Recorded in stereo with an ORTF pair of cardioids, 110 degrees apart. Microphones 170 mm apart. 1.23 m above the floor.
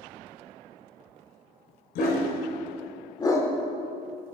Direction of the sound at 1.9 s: 70° left.